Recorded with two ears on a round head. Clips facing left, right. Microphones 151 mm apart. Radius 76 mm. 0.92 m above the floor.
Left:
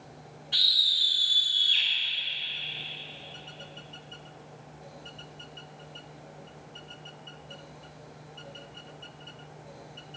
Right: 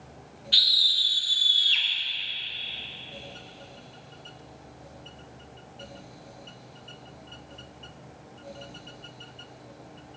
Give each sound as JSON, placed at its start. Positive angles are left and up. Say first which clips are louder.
{"t": 0.5, "sound": "a scream", "louder": "right 3 dB", "side_deg": -45, "distance_m": 3.0}